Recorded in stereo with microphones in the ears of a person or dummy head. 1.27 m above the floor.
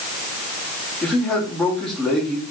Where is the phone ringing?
No phone ringing in this recording.